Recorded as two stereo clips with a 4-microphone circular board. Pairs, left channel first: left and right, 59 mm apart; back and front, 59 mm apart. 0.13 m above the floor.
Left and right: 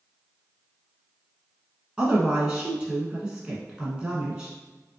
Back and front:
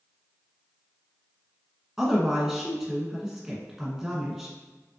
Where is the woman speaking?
60° right, 1.0 m.